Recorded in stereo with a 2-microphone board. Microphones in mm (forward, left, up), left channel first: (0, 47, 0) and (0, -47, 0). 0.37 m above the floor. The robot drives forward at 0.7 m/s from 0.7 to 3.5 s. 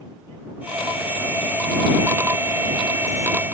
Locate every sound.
Only background noise.